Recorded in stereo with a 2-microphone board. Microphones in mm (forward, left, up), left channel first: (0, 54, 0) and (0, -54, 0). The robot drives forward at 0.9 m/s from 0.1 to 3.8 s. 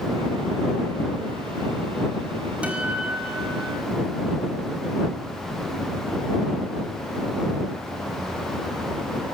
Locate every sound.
2.6 s a guitar: 10° right (ahead or behind), 5.5 m